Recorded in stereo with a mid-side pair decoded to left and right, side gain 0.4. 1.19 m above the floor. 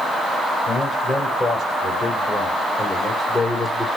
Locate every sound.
0.7 s a man speaking: 30° left, 6 m